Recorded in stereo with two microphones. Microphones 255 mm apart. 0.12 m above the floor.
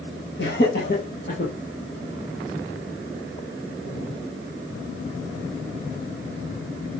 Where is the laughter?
50° left (ahead or behind), 3 m; by 1.5 s 40° left (ahead or behind), 4 m.